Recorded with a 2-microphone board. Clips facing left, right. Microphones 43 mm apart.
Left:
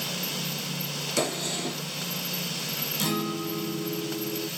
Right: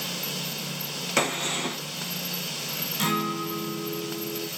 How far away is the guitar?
About 0.7 m.